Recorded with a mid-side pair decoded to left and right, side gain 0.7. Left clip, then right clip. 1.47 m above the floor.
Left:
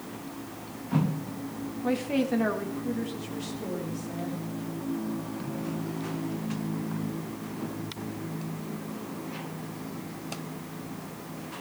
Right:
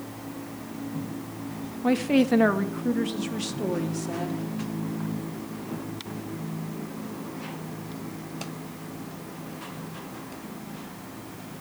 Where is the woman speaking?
25° right, 1.8 m; by 4.4 s 50° right, 3.5 m.